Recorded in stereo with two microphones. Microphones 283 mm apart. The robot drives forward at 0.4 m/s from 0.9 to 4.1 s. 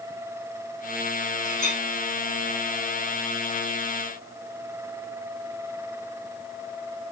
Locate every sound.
1.4 s a clink: 25° left (ahead or behind), 3.5 m